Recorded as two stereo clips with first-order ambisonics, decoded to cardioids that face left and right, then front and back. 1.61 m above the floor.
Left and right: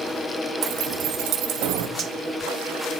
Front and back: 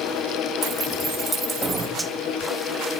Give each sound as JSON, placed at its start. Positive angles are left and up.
{"t": 0.6, "sound": "keys jangling", "azimuth_deg": -110, "distance_m": 2.0}
{"t": 2.0, "sound": "cutlery clinking", "azimuth_deg": -110, "distance_m": 0.7}